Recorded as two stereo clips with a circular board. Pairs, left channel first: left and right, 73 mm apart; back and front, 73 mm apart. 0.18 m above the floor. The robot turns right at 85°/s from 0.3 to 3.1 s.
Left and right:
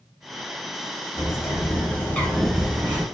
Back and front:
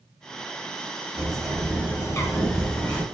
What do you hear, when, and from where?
1.2 s a bird: 65° left, 0.6 m; by 3.0 s 135° right, 0.6 m